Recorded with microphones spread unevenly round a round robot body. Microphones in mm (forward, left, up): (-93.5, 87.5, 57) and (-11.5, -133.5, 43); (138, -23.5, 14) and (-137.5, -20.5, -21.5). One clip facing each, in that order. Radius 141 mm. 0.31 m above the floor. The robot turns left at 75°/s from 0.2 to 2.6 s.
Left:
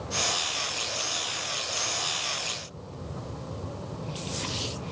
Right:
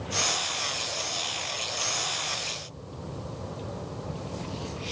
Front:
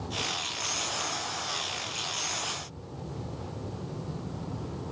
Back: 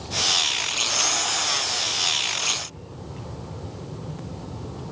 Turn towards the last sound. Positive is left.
No sound to turn to.